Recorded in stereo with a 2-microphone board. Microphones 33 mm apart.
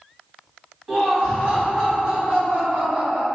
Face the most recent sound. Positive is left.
turn(degrees=-45)  # may be behind; listen again after turning